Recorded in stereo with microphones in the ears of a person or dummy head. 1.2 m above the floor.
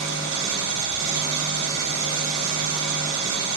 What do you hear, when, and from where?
0.0 s an engine running: 80° right, 1.2 m